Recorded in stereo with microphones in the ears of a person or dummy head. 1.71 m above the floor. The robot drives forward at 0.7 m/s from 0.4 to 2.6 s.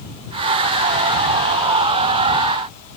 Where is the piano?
I don't hear a piano.